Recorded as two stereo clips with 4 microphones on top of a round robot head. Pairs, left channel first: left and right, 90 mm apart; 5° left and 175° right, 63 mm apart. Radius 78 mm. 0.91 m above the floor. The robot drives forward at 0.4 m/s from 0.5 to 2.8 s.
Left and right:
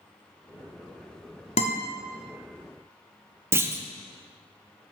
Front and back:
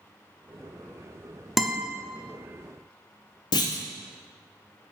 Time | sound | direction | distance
1.6 | a guitar | 95° left | 0.8 m
3.5 | a clunk | 25° right | 0.6 m